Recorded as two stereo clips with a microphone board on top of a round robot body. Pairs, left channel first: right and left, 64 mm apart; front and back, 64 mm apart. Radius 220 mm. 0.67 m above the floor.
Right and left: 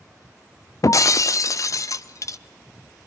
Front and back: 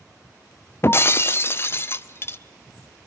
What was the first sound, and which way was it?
Breaking glass, 55° right.